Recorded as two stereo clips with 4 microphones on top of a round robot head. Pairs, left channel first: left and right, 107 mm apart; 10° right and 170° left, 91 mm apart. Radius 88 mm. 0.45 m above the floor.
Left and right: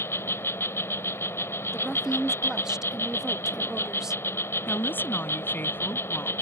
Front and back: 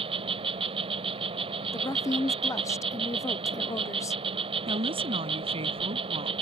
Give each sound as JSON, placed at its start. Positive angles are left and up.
{"t": 0.0, "sound": "an insect", "azimuth_deg": 160}
{"t": 1.7, "sound": "a woman speaking", "azimuth_deg": -10}
{"t": 4.7, "sound": "a woman speaking", "azimuth_deg": 160}